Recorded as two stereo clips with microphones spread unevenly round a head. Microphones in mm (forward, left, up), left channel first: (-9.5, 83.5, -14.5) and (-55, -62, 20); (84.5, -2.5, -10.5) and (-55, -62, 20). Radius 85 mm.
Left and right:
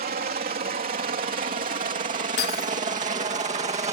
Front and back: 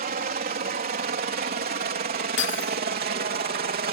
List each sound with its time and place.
0.0 s a helicopter: 135° right; by 3.9 s 150° right
2.4 s breaking glass: 35° left